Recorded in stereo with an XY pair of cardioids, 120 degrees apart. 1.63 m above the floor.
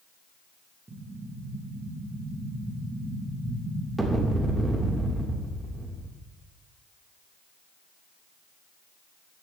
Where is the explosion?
15° right, 3 m.